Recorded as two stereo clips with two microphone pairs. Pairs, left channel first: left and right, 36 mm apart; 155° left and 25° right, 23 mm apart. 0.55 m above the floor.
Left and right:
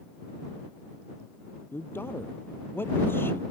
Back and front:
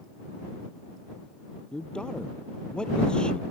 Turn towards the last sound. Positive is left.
turn(degrees=105)